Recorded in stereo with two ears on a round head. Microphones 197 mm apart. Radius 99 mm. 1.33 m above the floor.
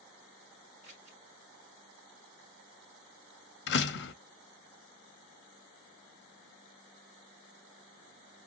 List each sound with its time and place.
0.8 s scissors: 30° right (ahead or behind), 2.5 m
3.7 s a door slam: 55° left (ahead or behind), 0.8 m